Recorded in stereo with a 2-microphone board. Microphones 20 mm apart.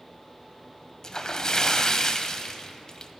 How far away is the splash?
About 0.5 m.